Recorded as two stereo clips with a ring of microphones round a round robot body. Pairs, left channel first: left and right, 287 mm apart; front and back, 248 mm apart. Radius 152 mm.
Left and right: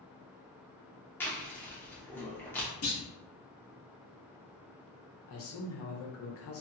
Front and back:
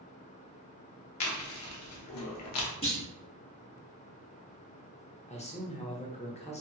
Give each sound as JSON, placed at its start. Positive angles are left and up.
{"t": 1.2, "sound": "chewing", "azimuth_deg": 5, "distance_m": 0.6}
{"t": 2.8, "sound": "a clunk", "azimuth_deg": 65, "distance_m": 1.5}
{"t": 5.3, "sound": "a man speaking", "azimuth_deg": 60, "distance_m": 0.9}